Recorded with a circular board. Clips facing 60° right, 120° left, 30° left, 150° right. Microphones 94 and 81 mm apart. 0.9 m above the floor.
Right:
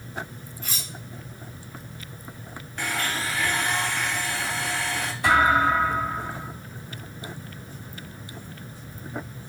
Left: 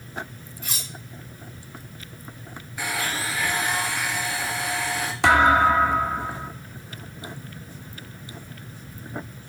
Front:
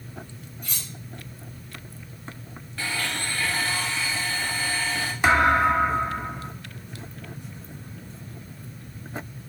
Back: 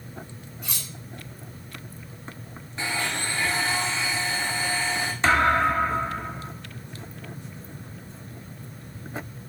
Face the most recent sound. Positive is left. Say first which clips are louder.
# left 3 dB, front 2 dB
turn(degrees=110)